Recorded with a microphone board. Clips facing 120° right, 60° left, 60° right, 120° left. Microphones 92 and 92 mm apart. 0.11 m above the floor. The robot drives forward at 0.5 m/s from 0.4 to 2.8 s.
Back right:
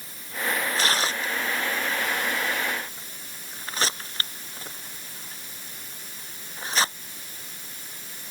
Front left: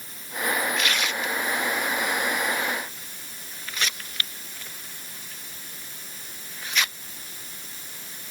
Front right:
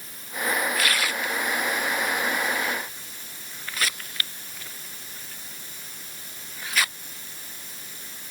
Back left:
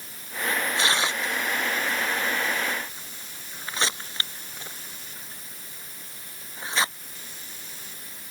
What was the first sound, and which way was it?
Tearing paper, 175° right.